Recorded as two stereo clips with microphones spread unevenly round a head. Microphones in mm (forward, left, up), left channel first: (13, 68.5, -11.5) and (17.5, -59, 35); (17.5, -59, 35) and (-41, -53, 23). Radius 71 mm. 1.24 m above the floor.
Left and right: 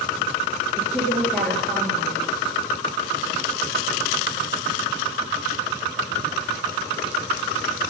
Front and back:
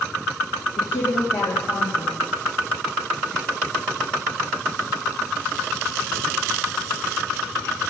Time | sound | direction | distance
0.8 | a woman speaking | 5° right | 2.5 m